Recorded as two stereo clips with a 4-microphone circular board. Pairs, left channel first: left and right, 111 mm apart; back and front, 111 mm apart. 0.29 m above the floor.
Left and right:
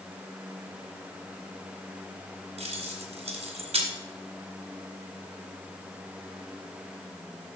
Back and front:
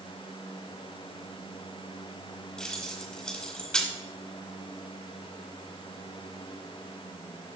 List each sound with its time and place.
2.6 s keys jangling: 100° right, 2.5 m